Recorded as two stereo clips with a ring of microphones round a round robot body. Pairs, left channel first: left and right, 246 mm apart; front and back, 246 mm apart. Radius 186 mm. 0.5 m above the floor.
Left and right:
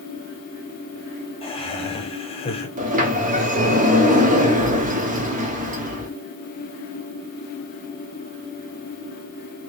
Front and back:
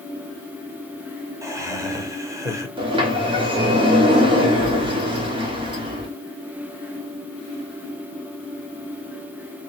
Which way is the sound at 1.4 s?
120° left.